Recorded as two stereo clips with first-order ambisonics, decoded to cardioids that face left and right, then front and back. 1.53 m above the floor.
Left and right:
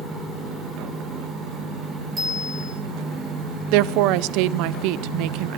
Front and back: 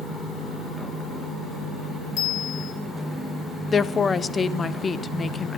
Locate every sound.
2.2 s a bicycle bell: 10° right, 7 m
3.7 s a woman speaking: 75° right, 0.6 m